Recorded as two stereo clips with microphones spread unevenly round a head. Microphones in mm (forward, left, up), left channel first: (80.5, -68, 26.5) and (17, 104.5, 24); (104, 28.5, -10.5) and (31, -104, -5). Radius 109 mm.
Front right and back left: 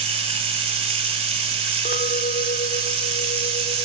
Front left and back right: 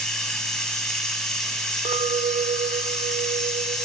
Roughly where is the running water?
Behind left.